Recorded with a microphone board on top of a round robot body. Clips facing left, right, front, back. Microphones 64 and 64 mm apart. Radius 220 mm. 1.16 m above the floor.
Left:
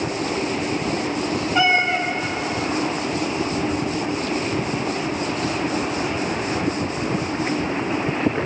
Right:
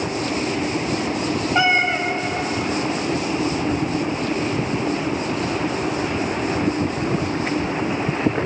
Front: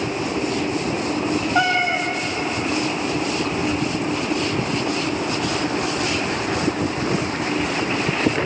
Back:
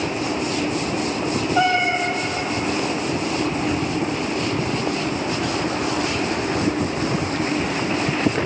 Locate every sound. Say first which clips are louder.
1.6 s a cat meowing: even, back 1 dB; 25° right, 1.1 m